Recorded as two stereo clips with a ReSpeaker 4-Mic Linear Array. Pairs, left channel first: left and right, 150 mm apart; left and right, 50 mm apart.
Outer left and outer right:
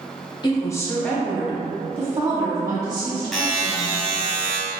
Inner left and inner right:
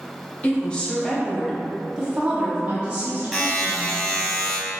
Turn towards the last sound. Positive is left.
turn(degrees=0)  # may be behind; listen again after turning